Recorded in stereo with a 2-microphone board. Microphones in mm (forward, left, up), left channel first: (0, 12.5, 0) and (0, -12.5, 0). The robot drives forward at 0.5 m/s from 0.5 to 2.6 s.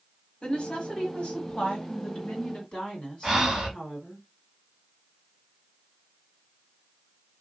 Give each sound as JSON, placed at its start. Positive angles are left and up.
{"t": 0.4, "sound": "a woman speaking", "side_deg": 50, "distance_m": 1.4}
{"t": 3.2, "sound": "breathing", "side_deg": -15, "distance_m": 1.3}